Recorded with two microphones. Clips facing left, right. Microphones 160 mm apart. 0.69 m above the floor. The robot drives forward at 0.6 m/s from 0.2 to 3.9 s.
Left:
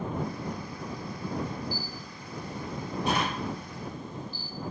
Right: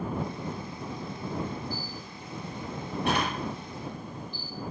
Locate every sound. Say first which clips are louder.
1.7 s a camera shutter: even; 75° right (ahead or behind), 4.5 m; by 4.5 s 60° right (ahead or behind), 5 m